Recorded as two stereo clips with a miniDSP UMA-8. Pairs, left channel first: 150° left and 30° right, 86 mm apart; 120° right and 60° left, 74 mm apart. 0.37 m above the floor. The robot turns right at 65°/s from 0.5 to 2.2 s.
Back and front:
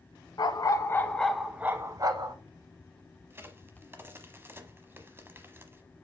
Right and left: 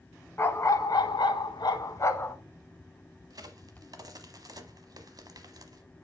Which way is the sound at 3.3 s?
35° left.